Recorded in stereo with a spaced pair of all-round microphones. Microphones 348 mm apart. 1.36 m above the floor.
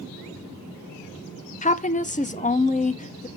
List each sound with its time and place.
1.6 s a woman speaking: 20° left (ahead or behind), 0.7 m